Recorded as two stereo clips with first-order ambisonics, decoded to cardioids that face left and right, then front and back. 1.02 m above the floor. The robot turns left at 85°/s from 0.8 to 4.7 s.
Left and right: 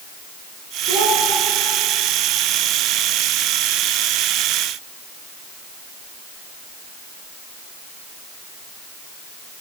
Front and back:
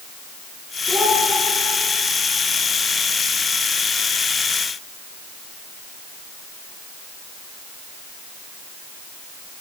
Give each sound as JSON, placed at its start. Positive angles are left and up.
{"t": 0.9, "sound": "a child speaking", "azimuth_deg": -80, "distance_m": 6.0}